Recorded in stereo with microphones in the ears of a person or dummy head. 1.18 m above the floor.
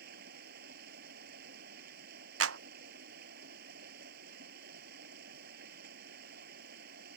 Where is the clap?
85° right.